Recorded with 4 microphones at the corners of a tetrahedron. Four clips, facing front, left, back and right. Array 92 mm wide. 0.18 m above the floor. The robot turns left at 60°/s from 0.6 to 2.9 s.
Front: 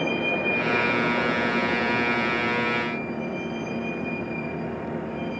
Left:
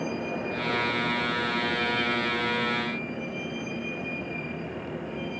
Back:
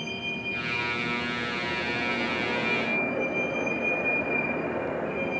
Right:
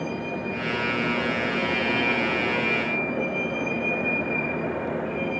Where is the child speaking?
I don't hear a child speaking.